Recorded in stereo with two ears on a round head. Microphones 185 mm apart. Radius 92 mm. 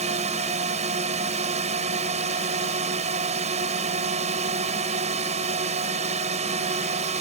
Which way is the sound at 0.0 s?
30° right (ahead or behind).